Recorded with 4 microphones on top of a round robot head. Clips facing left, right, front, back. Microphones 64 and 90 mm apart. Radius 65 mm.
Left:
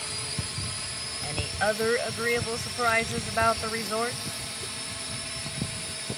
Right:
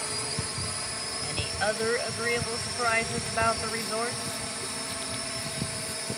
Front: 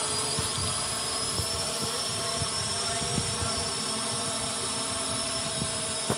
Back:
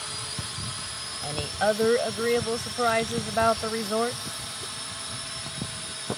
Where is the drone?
35° right.